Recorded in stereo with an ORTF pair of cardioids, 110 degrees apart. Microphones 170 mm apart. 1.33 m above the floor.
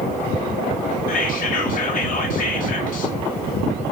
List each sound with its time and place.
1.1 s whispering: 50° left, 0.9 m